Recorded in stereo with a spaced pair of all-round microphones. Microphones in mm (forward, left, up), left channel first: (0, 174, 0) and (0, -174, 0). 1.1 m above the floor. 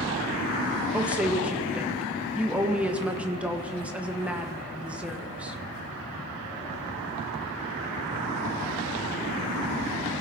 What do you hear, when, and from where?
0.9 s a woman speaking: 5° right (ahead or behind), 1.1 m